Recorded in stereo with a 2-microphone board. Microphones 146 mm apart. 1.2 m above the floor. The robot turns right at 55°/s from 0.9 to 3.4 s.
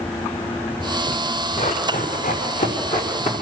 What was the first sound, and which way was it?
Running footsteps, 40° left (ahead or behind).